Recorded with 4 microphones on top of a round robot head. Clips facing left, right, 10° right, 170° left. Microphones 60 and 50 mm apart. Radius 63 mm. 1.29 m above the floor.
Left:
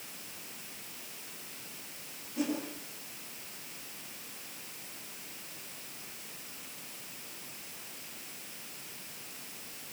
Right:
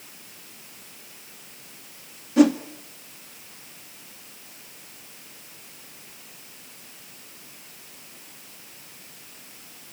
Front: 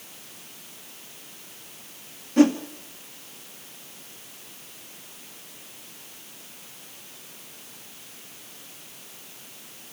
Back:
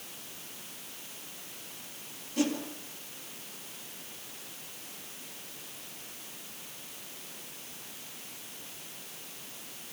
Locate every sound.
2.4 s a whoosh: 65° right, 2 m